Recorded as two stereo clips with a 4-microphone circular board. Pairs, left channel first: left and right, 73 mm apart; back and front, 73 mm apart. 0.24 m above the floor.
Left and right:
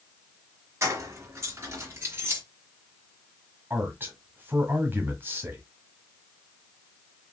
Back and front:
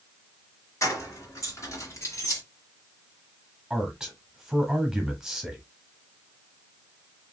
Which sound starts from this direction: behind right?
Keys jangling, at 0.8 s.